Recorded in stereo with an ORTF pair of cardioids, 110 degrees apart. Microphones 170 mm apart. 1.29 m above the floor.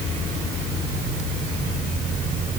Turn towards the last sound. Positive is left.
No sound to turn to.